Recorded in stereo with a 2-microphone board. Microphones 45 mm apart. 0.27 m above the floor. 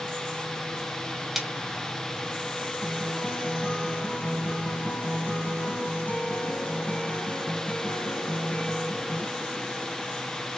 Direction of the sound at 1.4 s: 5° right (ahead or behind).